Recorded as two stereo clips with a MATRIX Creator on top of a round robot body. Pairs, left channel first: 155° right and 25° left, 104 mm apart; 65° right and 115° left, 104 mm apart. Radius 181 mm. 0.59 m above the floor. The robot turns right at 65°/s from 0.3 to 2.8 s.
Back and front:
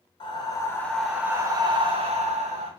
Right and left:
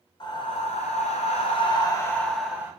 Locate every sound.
0.2 s breathing: 115° right, 0.7 m; by 2.7 s 40° left, 0.7 m